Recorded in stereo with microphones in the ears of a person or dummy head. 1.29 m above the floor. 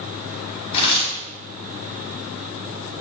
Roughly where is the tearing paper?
Left.